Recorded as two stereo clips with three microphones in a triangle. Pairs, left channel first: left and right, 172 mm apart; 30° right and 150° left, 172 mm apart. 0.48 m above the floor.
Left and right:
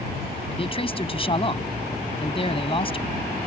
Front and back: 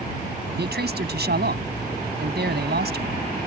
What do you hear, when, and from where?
0.6 s a man speaking: 145° left